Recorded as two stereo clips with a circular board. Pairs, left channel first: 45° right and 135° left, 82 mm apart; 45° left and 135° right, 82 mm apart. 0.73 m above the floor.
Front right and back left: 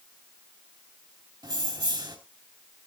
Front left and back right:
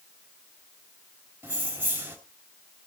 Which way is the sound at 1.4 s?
160° left.